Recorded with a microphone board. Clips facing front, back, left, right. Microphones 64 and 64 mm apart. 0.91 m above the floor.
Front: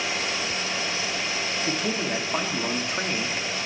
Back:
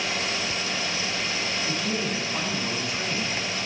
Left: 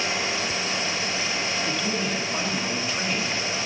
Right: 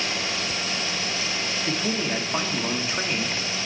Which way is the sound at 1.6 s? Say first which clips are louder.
Front 3 dB, even; 25° right.